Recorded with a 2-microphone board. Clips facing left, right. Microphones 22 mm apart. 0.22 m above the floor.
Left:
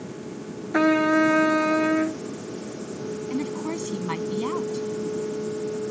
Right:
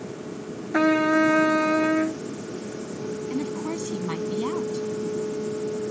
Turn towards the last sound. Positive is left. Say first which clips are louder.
# left 1 dB
turn(degrees=30)  # may be behind; listen again after turning